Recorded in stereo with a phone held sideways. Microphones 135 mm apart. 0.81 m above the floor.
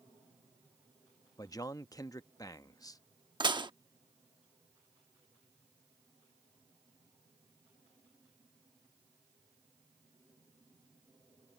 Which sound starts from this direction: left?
A man speaking, at 1.4 s.